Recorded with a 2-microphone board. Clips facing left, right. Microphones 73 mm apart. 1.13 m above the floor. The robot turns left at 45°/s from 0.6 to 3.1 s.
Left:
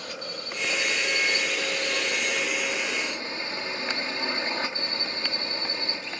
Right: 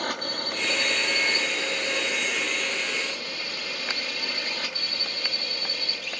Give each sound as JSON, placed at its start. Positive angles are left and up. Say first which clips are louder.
{"t": 0.0, "sound": "a drone", "louder": "right 6 dB", "azimuth_deg": -95}